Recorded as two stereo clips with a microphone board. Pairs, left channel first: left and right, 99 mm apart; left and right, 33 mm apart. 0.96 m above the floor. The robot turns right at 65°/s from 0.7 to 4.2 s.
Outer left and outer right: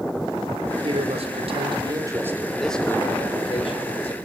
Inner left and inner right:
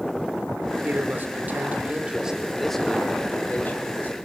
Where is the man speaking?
115° right, 4 m; by 4.2 s 100° left, 4 m.